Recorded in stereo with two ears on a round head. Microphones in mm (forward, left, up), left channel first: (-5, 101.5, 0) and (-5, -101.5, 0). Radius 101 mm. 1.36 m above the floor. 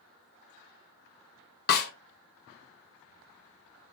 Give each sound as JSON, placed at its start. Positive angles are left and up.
{"t": 1.7, "sound": "a snare drum", "side_deg": 45, "distance_m": 1.0}